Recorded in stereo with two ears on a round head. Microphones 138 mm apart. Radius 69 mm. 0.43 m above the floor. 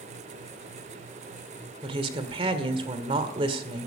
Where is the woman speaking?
35° right (ahead or behind), 1.6 m.